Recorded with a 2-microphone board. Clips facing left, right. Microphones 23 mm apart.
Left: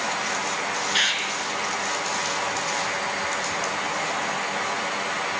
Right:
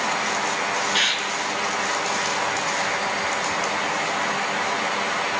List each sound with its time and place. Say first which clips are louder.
0.9 s a bird: even; 5° left (ahead or behind), 4 m